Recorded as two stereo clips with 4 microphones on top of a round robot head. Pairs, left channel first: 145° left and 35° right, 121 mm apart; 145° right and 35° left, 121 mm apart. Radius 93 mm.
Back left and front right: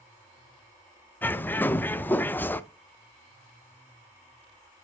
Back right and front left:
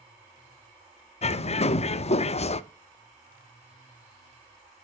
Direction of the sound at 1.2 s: 145° right.